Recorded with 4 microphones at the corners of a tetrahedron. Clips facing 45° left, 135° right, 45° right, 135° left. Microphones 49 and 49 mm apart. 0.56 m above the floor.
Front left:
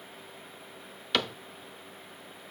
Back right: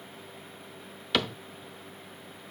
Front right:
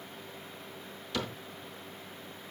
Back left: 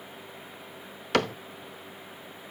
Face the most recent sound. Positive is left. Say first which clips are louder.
# back right 1 dB, back left 10 dB
turn(degrees=135)